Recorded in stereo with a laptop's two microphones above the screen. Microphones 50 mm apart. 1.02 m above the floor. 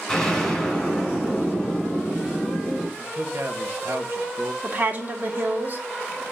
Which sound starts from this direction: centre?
An explosion, at 0.1 s.